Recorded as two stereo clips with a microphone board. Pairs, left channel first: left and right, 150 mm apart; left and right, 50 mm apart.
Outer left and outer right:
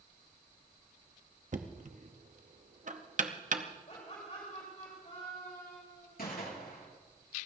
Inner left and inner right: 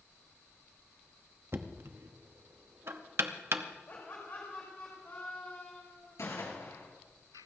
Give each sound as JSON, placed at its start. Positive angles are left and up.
{"t": 1.5, "sound": "knocking", "side_deg": -60, "distance_m": 0.9}
{"t": 3.9, "sound": "laughter", "side_deg": 50, "distance_m": 3.5}
{"t": 6.2, "sound": "a gunshot", "side_deg": 80, "distance_m": 4.5}